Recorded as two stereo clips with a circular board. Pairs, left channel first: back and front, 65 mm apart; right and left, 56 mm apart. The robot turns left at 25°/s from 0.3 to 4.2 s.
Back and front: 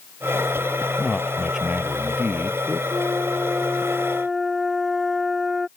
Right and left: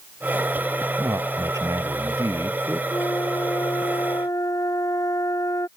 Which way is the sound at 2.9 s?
55° right.